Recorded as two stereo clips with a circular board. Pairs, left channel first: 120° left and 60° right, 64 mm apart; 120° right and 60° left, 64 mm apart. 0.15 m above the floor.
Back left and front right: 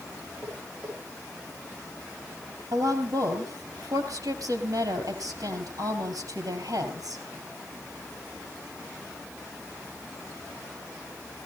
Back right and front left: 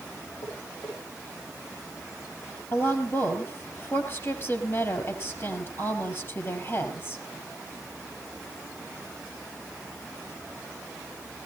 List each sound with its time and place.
0.4 s tapping: 135° right, 9.5 m
2.7 s a woman speaking: 75° right, 4 m